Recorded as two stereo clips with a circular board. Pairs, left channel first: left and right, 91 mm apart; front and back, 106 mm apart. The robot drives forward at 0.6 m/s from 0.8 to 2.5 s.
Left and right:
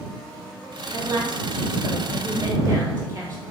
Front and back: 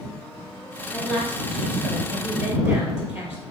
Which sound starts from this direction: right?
A woman speaking, at 0.9 s.